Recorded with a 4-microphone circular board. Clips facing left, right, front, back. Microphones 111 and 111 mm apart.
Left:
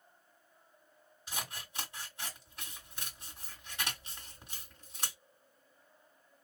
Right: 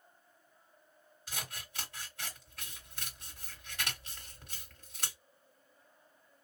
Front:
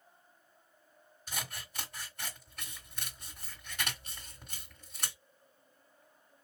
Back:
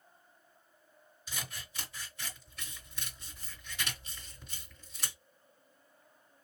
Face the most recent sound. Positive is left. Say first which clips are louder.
# left 2 dB, front 2 dB
turn(degrees=20)